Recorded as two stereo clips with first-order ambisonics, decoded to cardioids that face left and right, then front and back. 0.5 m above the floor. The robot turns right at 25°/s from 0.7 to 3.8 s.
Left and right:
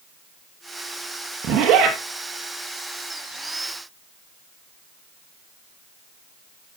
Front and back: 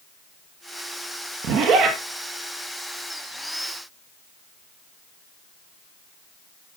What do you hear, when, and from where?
1.4 s a zipper: 140° right, 2.5 m; by 2.0 s 125° right, 2.5 m